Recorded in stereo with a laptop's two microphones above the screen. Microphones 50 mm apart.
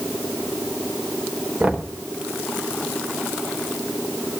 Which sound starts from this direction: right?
Knocking, at 1.6 s.